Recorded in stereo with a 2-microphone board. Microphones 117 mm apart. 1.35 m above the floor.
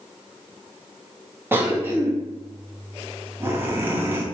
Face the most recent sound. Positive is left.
turn(degrees=-20)  # may be behind; listen again after turning